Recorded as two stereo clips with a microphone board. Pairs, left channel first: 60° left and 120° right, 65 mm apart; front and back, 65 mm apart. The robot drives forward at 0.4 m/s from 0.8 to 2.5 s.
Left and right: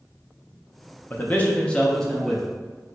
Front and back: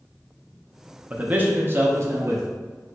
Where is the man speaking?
115° left, 0.7 m; by 2.5 s 150° left, 1.0 m.